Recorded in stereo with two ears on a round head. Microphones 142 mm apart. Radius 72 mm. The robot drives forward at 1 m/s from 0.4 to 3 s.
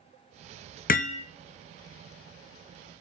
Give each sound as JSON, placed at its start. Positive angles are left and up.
{"t": 0.9, "sound": "hammering", "side_deg": 60, "distance_m": 0.6}